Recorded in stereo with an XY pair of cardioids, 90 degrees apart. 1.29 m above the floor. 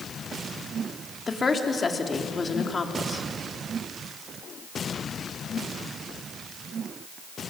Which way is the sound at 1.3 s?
40° left.